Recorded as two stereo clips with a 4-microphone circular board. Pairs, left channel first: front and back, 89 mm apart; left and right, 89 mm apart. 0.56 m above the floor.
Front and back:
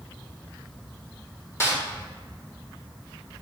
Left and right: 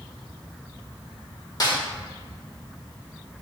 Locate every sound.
1.6 s a snare drum: 55° left, 1.9 m